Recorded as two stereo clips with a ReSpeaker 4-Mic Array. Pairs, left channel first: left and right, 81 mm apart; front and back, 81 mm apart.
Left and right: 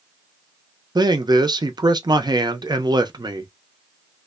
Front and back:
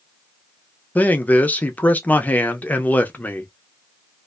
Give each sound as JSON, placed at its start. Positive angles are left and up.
{"t": 0.9, "sound": "a man speaking", "azimuth_deg": -70, "distance_m": 0.6}